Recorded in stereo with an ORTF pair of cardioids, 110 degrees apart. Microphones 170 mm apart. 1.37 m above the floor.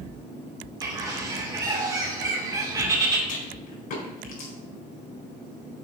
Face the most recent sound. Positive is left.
turn(degrees=55)